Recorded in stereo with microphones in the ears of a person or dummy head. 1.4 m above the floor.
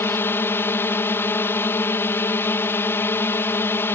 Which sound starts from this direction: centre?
A drone, at 0.0 s.